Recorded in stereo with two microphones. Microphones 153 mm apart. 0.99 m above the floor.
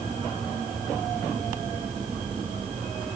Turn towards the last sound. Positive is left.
No sound to turn to.